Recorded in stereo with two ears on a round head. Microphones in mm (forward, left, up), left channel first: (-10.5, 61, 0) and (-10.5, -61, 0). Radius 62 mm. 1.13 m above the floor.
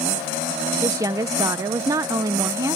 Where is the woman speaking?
25° right (ahead or behind).